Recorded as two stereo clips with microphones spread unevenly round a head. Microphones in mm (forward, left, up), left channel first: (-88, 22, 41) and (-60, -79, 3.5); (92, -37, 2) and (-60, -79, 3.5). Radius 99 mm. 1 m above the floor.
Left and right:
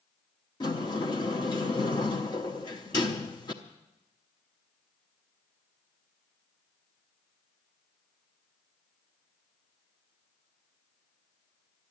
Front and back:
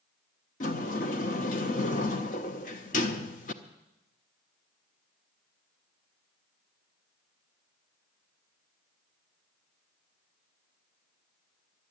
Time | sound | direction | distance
0.6 | a sliding door | 60° left | 0.7 m